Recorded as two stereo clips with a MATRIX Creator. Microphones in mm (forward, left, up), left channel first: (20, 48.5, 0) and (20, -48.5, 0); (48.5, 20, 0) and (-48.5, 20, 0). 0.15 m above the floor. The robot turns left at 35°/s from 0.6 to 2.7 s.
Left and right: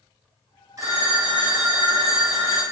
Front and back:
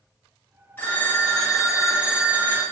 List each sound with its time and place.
0.8 s a phone ringing: 60° right, 1.1 m; by 2.6 s 125° right, 1.1 m